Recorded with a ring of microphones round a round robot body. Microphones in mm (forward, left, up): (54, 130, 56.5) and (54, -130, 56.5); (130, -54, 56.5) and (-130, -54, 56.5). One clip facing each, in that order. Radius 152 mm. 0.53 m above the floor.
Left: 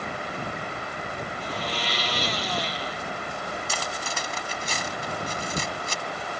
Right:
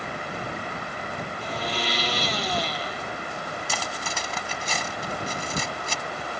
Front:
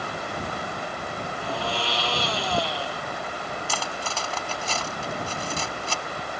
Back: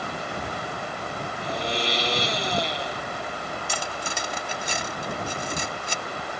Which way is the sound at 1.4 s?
110° right.